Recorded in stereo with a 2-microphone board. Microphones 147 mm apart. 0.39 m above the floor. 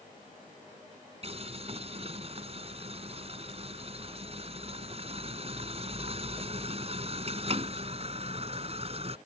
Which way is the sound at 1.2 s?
45° right (ahead or behind).